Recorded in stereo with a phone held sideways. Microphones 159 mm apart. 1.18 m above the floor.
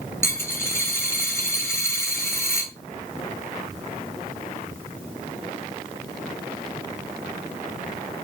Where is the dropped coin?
15° left (ahead or behind), 0.9 m.